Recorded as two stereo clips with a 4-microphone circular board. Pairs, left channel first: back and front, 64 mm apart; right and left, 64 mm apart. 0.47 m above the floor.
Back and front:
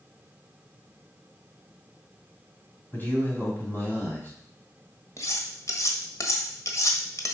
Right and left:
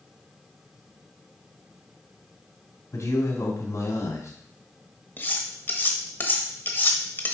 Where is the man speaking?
125° right, 3 m.